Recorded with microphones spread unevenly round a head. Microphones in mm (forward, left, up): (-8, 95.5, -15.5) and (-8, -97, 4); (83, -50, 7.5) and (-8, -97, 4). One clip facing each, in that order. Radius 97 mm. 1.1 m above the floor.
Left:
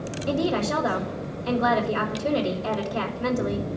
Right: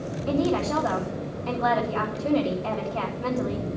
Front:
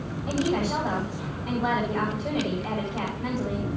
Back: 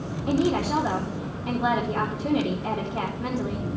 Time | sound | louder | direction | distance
0.3 | a woman speaking | right 1 dB, back 3 dB | 155° left | 2.5 m